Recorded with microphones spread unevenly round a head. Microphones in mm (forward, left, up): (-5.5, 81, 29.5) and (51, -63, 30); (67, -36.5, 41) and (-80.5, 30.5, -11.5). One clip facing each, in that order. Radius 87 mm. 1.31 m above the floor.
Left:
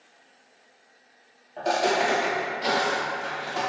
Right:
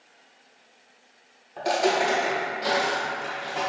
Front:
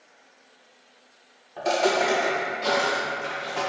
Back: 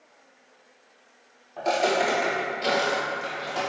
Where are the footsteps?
5° right, 1.4 m; by 3.6 s 160° left, 2.5 m.